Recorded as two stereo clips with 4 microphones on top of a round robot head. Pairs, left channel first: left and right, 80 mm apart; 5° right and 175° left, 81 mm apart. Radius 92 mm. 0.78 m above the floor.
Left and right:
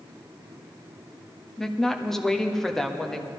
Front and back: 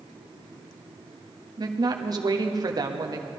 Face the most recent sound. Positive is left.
turn(degrees=175)